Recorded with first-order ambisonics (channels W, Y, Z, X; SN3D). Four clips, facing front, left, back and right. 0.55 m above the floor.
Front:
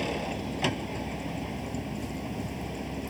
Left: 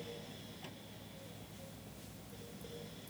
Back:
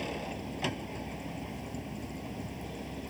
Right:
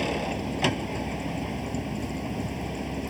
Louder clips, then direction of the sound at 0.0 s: Right 20 dB, front 6 dB; 70° right.